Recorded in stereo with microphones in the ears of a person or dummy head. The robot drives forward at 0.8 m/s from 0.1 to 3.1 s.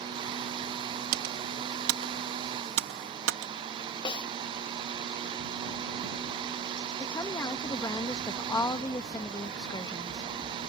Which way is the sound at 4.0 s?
25° left (ahead or behind).